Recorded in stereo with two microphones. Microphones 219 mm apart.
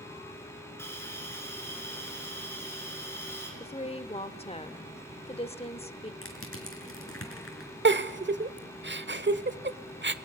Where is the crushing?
80° left, 4 m.